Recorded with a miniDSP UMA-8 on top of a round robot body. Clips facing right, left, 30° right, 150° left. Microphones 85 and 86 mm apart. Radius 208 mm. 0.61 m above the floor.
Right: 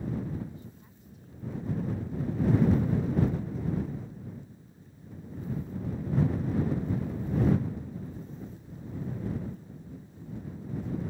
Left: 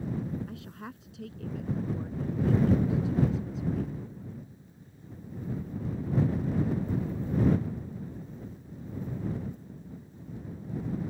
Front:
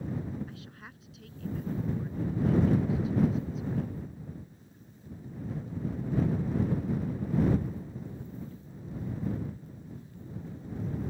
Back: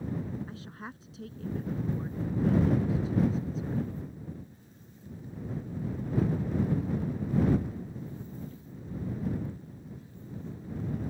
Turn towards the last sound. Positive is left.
turn(degrees=90)